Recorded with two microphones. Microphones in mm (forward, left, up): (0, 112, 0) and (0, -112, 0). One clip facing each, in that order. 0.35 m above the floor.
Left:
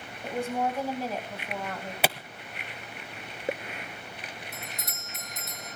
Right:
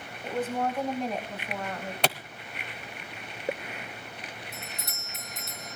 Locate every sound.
0.2 s a woman speaking: 15° left (ahead or behind), 2 m; by 1.9 s 5° right (ahead or behind), 2.5 m
2.0 s a clap: 5° left (ahead or behind), 0.9 m
4.5 s a doorbell: 30° right (ahead or behind), 1.4 m